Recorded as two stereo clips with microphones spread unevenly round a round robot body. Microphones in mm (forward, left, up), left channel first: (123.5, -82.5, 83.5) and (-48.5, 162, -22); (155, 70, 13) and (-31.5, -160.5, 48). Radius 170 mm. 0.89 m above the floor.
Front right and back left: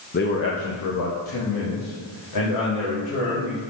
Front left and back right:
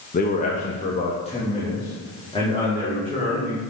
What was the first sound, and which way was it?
A man speaking, 15° left.